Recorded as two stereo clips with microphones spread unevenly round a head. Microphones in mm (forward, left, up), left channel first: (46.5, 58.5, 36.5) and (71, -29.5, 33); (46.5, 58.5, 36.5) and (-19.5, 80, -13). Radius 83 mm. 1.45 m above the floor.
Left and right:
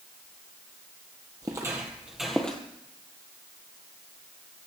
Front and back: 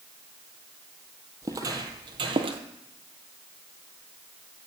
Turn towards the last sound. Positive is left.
turn(degrees=165)